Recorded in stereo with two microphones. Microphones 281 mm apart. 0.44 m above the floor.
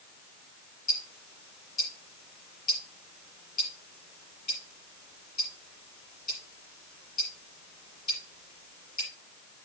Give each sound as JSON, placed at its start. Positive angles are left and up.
{"t": 0.9, "sound": "ticking", "side_deg": 85, "distance_m": 5.0}